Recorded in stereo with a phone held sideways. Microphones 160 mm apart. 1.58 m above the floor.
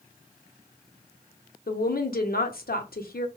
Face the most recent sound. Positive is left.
turn(degrees=70)  # may be behind; listen again after turning